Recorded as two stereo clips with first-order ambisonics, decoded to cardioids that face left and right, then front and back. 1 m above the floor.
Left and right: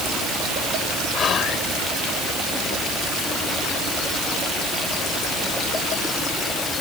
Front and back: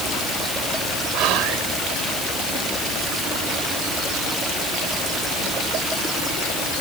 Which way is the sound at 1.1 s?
150° left.